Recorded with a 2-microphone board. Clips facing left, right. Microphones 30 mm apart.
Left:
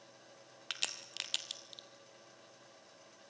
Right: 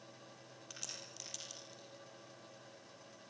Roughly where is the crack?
Left.